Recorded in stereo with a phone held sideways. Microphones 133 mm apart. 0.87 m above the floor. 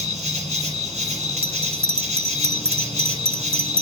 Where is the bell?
45° right (ahead or behind), 1.2 m.